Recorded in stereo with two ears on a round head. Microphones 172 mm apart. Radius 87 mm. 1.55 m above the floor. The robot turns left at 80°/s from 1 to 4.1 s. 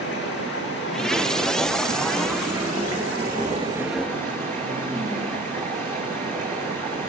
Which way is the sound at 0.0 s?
55° left.